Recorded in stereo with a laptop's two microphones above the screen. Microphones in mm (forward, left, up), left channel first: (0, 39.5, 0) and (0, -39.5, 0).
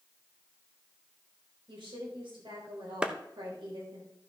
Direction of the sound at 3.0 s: 10° right (ahead or behind).